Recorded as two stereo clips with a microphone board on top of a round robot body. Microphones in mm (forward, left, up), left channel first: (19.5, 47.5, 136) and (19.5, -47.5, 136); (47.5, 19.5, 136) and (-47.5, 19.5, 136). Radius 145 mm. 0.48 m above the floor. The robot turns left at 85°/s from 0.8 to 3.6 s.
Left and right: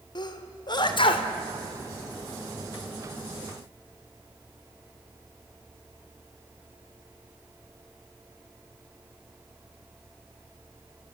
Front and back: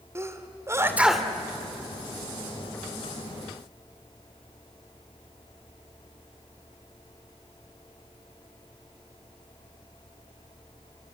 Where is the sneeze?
120° left, 2.5 m; by 1.3 s 80° left, 2.5 m.